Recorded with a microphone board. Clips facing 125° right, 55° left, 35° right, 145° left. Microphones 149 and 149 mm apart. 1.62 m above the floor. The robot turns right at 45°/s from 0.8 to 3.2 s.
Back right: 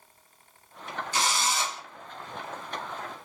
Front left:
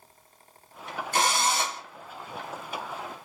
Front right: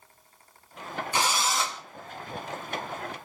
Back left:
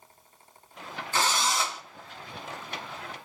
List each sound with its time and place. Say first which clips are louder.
1.1 s a drill: front left 4 dB, even; 35° left, 0.8 m; by 1.8 s 65° left, 0.8 m